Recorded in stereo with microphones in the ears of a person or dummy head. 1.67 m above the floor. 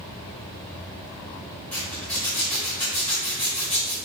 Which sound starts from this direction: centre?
A zipper, at 1.7 s.